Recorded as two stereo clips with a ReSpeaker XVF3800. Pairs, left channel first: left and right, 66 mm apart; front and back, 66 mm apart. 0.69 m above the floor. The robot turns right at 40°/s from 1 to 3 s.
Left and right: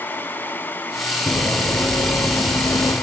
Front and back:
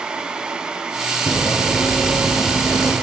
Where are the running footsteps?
70° left, 1.2 m; by 2.9 s 100° left, 2 m.